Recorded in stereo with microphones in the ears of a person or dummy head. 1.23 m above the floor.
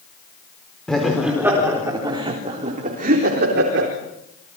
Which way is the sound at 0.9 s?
Centre (ahead or behind).